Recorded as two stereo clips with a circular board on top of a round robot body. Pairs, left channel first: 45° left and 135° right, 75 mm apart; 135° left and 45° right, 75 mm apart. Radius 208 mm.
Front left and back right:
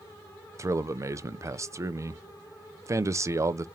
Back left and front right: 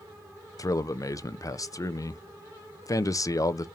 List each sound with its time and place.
0.6 s a man speaking: 175° left, 0.7 m